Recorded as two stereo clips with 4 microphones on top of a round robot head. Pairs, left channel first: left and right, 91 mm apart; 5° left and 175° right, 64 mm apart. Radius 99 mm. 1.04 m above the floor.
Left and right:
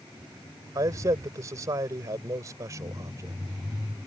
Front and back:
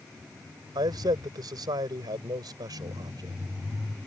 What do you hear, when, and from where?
0.8 s a man speaking: 150° right